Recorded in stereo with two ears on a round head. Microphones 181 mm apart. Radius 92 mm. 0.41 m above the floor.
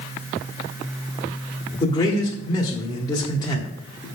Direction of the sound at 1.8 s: 20° left (ahead or behind).